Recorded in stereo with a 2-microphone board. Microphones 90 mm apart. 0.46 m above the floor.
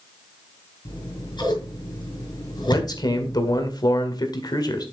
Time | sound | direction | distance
0.8 | scissors | 55° left (ahead or behind) | 5.5 m
2.7 | a man speaking | 50° left (ahead or behind) | 1.9 m